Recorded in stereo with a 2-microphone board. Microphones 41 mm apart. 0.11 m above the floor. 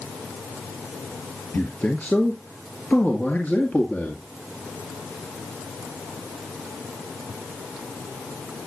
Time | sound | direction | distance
1.5 | a man speaking | 40° left (ahead or behind) | 2 m